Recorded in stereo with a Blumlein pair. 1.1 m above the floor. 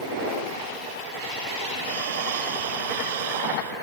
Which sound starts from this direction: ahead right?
Breathing, at 1.8 s.